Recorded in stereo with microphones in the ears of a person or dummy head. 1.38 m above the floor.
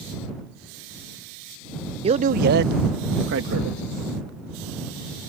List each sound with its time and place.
2.0 s a man speaking: 35° right (ahead or behind); by 3.8 s 85° right